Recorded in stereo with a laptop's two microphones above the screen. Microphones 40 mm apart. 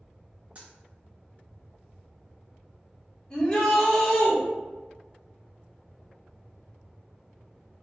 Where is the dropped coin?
35° right (ahead or behind), 0.5 m.